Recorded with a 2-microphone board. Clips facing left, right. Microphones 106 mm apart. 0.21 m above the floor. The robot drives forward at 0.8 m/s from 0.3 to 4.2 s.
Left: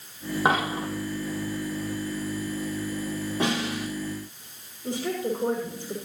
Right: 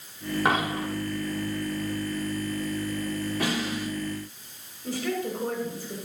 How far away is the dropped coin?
About 4 m.